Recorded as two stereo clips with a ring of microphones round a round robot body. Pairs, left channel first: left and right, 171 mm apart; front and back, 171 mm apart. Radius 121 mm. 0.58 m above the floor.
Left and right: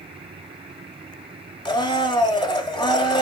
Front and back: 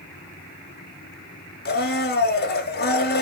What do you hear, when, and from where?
1.6 s a blender: 25° left, 1.6 m